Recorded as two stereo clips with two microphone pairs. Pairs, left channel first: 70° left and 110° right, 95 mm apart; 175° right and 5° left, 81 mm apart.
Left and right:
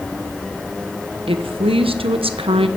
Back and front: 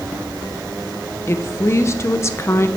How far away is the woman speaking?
About 1.1 m.